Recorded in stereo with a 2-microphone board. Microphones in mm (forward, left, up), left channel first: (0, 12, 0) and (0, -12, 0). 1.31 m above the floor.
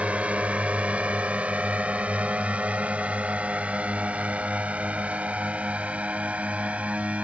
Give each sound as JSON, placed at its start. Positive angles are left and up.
{"t": 0.0, "sound": "a drone", "side_deg": -70}